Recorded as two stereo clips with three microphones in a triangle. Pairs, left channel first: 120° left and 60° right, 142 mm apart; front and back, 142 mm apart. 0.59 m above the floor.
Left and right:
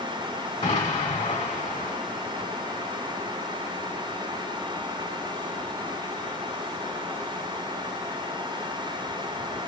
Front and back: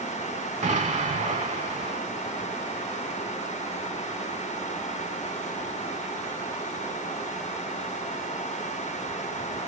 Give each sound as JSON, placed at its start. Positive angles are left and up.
{"t": 0.6, "sound": "an explosion", "azimuth_deg": 160, "distance_m": 1.6}